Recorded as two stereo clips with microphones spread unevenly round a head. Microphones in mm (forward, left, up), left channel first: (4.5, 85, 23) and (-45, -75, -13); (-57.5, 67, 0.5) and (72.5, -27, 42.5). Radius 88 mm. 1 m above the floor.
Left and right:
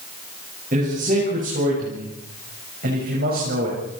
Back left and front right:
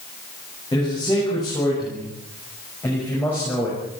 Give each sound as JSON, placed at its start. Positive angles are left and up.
{"t": 0.7, "sound": "a man speaking", "azimuth_deg": -150, "distance_m": 8.0}